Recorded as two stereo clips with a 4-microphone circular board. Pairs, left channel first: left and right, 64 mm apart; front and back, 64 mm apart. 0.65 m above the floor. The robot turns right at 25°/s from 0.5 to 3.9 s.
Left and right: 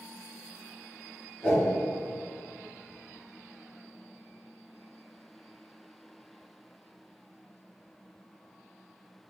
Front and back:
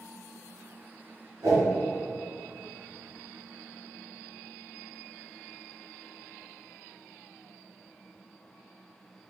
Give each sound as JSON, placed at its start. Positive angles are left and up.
{"t": 1.4, "sound": "a whoosh", "azimuth_deg": 165, "distance_m": 1.7}